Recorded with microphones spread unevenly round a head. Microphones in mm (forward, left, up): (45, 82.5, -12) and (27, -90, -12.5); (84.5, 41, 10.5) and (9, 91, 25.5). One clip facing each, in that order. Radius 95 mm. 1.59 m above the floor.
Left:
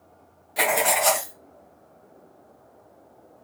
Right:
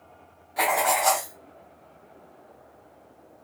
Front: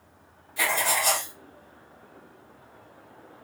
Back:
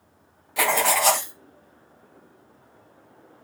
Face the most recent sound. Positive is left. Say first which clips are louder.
# left 1 dB, back 5 dB
turn(degrees=145)